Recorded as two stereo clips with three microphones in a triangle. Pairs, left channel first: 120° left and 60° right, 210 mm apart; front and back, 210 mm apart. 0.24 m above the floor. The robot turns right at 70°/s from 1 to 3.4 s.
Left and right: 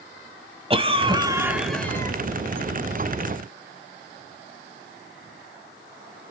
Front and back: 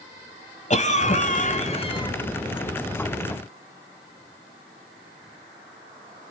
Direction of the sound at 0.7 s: 20° right.